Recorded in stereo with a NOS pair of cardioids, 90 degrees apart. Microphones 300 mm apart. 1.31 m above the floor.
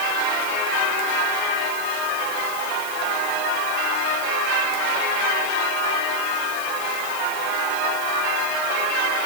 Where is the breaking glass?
I don't hear breaking glass.